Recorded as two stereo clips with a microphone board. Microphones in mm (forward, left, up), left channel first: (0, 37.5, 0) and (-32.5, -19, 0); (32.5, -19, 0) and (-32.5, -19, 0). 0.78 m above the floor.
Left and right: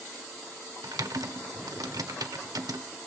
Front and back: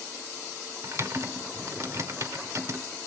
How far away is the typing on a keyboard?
About 1.0 m.